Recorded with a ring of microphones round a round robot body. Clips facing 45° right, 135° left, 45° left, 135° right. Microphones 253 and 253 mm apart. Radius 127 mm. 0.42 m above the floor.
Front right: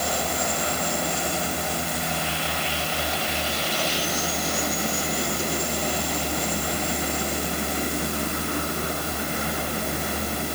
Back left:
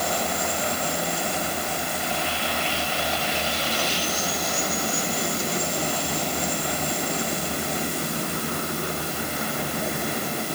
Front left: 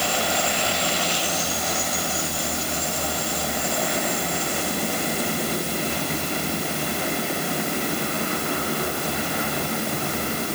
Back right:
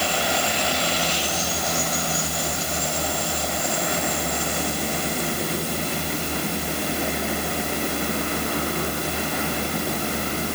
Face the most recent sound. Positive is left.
No sound to turn to.